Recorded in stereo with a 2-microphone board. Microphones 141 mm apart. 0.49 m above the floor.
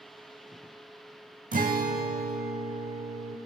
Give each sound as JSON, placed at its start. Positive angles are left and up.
{"t": 1.5, "sound": "a guitar", "side_deg": -65, "distance_m": 0.5}